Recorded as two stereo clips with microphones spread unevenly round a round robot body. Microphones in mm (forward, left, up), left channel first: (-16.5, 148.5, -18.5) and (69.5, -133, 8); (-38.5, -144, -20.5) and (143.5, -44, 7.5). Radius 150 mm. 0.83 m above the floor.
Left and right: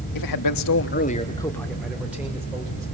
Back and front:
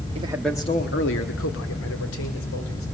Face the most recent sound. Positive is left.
turn(degrees=-155)